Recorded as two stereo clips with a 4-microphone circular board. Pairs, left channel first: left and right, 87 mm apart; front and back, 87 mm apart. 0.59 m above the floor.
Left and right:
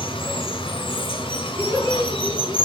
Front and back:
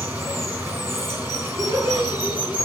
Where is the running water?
110° left, 2 m.